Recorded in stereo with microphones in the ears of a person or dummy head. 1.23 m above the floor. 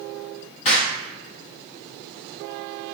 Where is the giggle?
I don't hear a giggle.